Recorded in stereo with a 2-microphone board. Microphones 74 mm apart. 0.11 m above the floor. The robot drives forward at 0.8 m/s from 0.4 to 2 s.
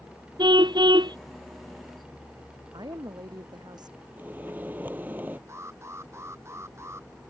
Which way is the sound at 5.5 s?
40° right (ahead or behind).